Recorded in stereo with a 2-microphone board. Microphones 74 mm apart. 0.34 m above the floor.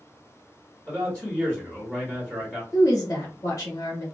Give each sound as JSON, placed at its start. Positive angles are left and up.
{"t": 0.9, "sound": "a man speaking", "side_deg": 10, "distance_m": 1.5}
{"t": 2.7, "sound": "a woman speaking", "side_deg": 45, "distance_m": 1.4}